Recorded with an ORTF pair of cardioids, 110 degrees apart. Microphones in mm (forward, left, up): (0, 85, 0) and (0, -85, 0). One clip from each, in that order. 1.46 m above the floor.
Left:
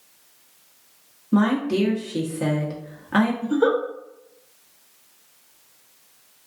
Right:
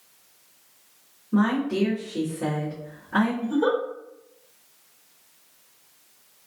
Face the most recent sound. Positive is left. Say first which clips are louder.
# left 5 dB
turn(degrees=30)